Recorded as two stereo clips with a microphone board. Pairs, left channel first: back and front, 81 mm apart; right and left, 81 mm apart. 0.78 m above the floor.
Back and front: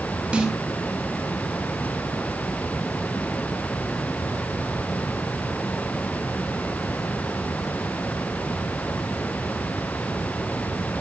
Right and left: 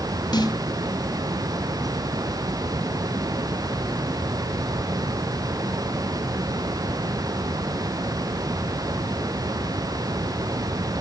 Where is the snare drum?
70° right, 3 m.